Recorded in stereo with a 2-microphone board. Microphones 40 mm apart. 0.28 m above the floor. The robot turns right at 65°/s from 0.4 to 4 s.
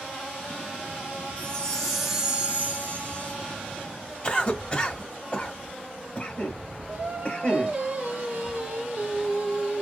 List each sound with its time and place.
1.4 s a chime: 140° left, 1.1 m; by 3.4 s 90° right, 1.1 m
4.2 s a cough: 30° left (ahead or behind), 1.0 m
6.9 s singing: 30° right (ahead or behind), 1.3 m